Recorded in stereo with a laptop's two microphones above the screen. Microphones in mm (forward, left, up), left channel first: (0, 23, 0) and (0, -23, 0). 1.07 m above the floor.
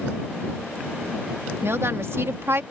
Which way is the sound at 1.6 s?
65° right (ahead or behind).